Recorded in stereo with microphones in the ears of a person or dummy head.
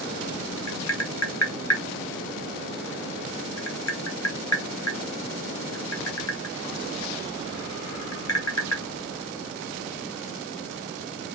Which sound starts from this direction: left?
Tapping, at 0.7 s.